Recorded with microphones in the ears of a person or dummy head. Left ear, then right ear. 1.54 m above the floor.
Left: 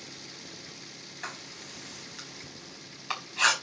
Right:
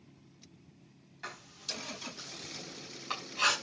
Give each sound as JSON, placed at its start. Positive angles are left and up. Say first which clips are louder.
{"t": 1.2, "sound": "writing", "louder": "right 1 dB", "side_deg": 30, "distance_m": 5.0}